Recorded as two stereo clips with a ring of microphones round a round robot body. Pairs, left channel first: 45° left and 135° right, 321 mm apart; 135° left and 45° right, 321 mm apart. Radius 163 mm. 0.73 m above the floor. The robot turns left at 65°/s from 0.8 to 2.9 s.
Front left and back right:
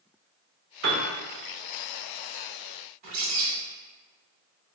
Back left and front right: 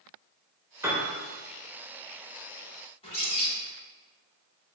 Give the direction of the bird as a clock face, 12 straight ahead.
5 o'clock.